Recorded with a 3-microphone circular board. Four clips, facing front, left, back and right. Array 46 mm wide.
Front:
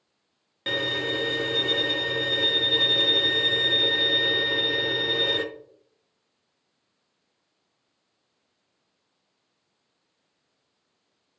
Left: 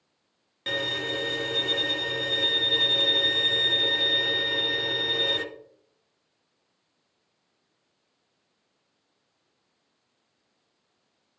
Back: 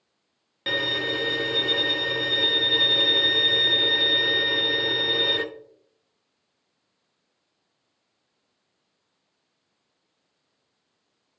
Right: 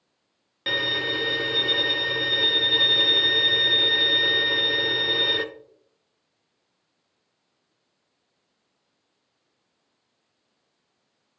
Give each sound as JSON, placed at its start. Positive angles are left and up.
{"t": 0.7, "sound": "a violin", "azimuth_deg": -105, "distance_m": 0.7}